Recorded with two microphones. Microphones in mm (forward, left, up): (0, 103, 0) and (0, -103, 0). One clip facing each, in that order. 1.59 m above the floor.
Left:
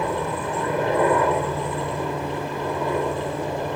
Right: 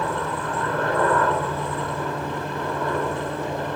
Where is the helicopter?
15° left (ahead or behind); by 3.8 s 10° left (ahead or behind).